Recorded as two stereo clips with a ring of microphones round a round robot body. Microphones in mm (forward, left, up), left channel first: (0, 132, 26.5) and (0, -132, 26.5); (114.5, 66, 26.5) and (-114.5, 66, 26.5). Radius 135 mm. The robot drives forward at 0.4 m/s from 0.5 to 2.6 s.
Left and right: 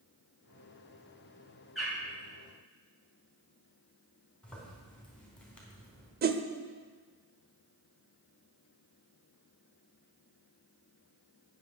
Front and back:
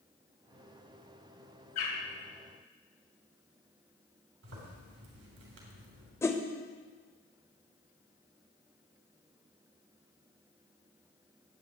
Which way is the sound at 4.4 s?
175° left.